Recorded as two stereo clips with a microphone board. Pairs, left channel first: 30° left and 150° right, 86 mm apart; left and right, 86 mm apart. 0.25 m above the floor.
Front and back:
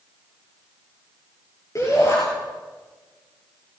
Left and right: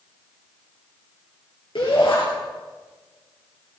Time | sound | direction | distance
1.8 | a shout | 80° left | 5.5 m